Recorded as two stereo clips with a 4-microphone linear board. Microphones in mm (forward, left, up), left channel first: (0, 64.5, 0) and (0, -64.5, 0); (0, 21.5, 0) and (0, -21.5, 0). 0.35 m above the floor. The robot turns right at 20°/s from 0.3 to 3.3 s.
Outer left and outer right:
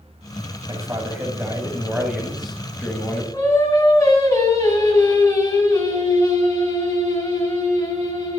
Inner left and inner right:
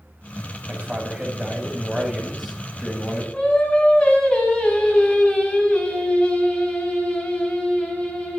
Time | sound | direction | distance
0.7 | a man speaking | 35° right | 2 m
3.3 | singing | 30° left (ahead or behind) | 3 m